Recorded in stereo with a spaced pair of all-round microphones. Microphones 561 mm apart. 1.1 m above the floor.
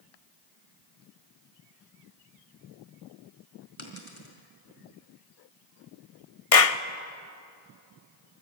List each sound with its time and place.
3.8 s a dropped coin: 60° left (ahead or behind), 3.5 m
6.5 s a clap: 75° left (ahead or behind), 0.9 m